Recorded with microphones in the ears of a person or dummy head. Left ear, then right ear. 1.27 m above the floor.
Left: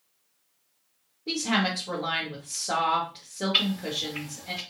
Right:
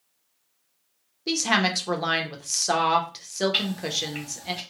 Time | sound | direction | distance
1.3 | a woman speaking | 60° right (ahead or behind) | 0.9 m
3.5 | ticking | 40° right (ahead or behind) | 1.6 m